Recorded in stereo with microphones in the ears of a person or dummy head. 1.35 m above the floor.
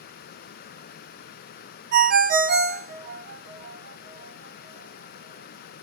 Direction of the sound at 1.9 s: 55° right (ahead or behind).